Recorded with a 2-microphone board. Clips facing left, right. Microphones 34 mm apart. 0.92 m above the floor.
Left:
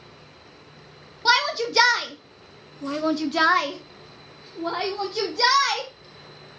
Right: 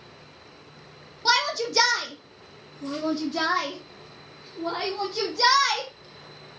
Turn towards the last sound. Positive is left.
turn(degrees=30)  # may be behind; listen again after turning